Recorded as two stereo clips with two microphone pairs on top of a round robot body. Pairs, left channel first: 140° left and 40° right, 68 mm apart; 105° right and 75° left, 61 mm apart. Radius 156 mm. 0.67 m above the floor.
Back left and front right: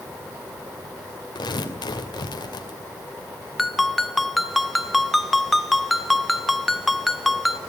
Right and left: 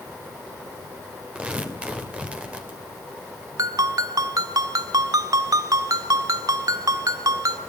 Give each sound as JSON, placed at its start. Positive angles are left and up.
{"t": 1.4, "sound": "tearing paper", "azimuth_deg": 145, "distance_m": 3.0}
{"t": 3.6, "sound": "a ringtone", "azimuth_deg": 50, "distance_m": 1.2}